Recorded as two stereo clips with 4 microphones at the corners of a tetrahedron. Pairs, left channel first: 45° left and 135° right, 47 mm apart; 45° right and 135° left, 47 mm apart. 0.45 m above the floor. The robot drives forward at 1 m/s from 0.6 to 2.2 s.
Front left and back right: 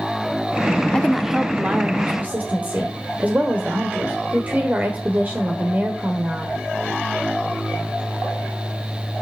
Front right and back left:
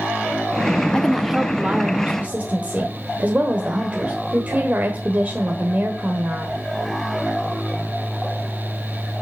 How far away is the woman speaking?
About 0.7 m.